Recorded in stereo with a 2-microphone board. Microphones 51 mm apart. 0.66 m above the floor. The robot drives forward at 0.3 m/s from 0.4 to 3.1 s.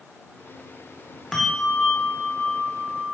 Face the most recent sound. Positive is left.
turn(degrees=5)  # may be behind; listen again after turning